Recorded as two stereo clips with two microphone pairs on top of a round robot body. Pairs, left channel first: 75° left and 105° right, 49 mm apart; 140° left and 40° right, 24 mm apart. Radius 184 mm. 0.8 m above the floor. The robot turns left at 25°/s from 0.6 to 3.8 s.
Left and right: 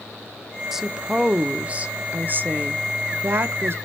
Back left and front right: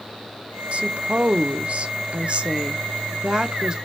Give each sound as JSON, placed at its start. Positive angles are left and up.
{"t": 0.7, "sound": "a woman speaking", "azimuth_deg": -20, "distance_m": 0.5}